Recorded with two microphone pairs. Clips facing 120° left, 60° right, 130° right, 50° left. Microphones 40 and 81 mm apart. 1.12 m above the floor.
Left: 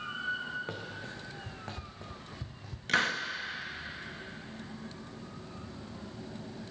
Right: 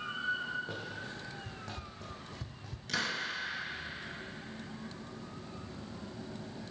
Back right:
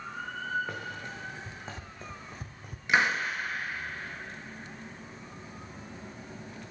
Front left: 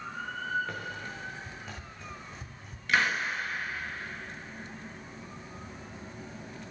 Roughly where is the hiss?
Behind.